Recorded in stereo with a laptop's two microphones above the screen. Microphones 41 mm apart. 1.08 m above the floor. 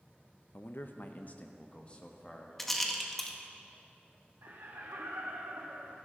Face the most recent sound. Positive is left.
turn(degrees=-80)